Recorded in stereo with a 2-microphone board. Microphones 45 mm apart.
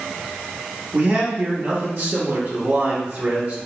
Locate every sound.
0.9 s a man speaking: 35° right (ahead or behind), 0.8 m